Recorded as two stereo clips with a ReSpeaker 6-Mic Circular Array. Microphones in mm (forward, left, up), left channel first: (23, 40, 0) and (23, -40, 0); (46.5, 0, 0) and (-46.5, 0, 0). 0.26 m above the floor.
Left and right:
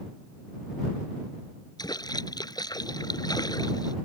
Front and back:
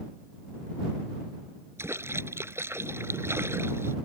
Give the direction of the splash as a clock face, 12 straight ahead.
8 o'clock.